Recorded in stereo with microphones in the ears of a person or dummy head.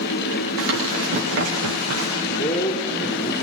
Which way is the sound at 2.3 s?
30° left (ahead or behind).